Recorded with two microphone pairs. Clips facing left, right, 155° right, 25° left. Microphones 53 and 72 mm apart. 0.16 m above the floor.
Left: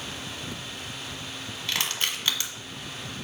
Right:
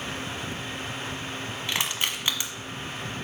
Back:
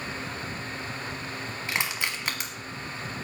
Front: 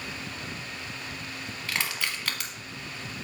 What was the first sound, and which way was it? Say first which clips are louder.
Crushing: even, back 1 dB; 125° right.